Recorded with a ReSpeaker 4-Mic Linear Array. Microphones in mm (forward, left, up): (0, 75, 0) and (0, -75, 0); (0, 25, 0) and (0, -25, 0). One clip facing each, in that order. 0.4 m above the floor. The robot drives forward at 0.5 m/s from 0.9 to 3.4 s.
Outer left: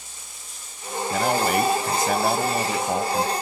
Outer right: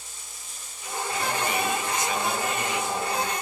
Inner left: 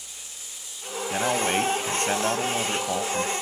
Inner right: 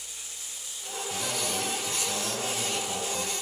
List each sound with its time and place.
1.1 s a man speaking: 65° left (ahead or behind), 1.9 m; by 3.3 s 50° left (ahead or behind), 2.5 m